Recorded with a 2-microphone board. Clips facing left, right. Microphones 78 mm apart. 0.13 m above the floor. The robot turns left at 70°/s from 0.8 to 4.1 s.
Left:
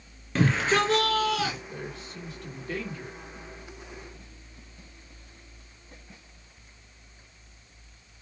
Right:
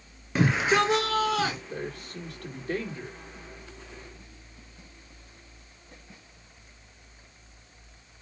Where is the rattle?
I don't hear a rattle.